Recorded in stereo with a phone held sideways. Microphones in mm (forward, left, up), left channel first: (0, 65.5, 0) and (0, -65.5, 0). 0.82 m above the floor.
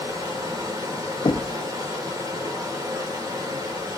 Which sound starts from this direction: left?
Knocking, at 1.2 s.